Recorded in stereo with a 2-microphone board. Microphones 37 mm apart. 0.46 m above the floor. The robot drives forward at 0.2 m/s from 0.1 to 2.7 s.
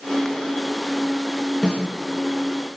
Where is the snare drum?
25° left (ahead or behind), 6 m.